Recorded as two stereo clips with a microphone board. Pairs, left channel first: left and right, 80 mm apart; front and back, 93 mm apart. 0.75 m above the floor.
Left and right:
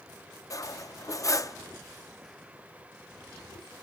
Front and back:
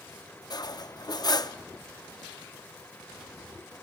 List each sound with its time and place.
0.5 s cutlery clinking: 45° left, 0.7 m